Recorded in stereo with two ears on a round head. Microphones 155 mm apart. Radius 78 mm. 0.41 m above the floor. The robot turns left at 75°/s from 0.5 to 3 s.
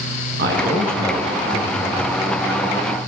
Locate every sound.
0.4 s a man speaking: 115° right, 6.5 m; by 2.2 s 115° left, 6.5 m